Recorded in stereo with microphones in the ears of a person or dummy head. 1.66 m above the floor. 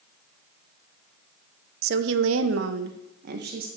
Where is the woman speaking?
60° right (ahead or behind), 1.3 m; by 3.7 s 45° right (ahead or behind), 2.5 m.